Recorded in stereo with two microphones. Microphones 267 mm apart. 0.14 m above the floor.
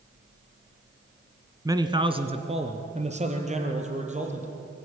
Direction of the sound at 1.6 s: 10° right (ahead or behind).